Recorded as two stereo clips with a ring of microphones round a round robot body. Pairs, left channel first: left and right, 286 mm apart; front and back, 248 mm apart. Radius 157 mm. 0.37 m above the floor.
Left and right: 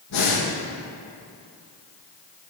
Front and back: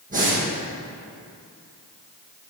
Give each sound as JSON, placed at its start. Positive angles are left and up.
{"t": 0.1, "sound": "breathing", "azimuth_deg": 120, "distance_m": 4.0}